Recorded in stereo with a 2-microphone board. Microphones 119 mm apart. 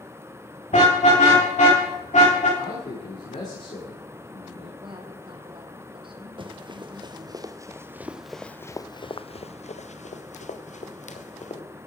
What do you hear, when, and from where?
0.7 s a car horn: 75° left (ahead or behind), 7 m; by 2.5 s 80° left, 8 m
2.6 s a man speaking: 80° left, 7.5 m
4.8 s a woman speaking: 45° right (ahead or behind), 3.5 m
6.4 s running footsteps: 45° right (ahead or behind), 2.0 m; by 11.6 s 85° left, 2.5 m